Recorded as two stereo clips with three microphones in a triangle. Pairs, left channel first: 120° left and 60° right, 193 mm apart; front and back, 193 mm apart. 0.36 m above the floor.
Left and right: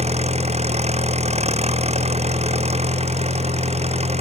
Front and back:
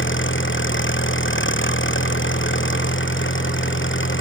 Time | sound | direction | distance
0.0 | an engine running | 5° right | ?